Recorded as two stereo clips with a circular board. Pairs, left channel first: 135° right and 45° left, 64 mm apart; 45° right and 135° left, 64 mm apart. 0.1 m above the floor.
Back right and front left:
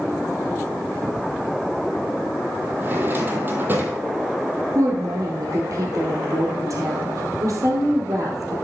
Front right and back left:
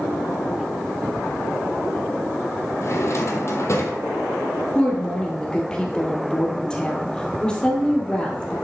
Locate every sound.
2.8 s a drawer: 10° right, 1.4 m
4.8 s a woman speaking: 30° left, 2.5 m